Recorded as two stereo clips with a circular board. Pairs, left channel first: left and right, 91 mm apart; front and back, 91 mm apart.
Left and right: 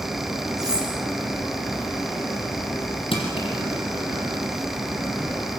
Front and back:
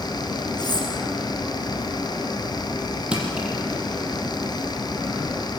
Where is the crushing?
100° left, 6.5 m.